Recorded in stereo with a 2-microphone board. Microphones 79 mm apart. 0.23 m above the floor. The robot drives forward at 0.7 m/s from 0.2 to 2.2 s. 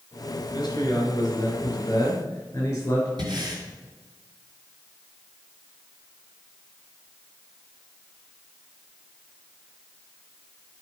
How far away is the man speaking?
About 3.5 m.